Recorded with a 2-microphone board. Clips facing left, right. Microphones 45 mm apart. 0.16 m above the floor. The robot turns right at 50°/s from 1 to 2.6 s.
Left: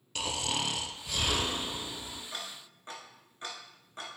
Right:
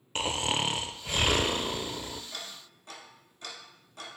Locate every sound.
0.1 s snoring: 140° right, 0.6 m; by 2.2 s 80° right, 0.6 m
2.3 s ticking: 20° left (ahead or behind), 1.7 m; by 4.2 s 35° left (ahead or behind), 1.7 m